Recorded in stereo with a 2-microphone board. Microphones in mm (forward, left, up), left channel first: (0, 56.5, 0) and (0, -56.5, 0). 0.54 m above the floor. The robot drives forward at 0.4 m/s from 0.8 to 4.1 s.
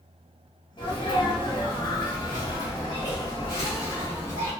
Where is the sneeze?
40° left (ahead or behind), 1.2 m; by 4.5 s 30° left (ahead or behind), 1.7 m.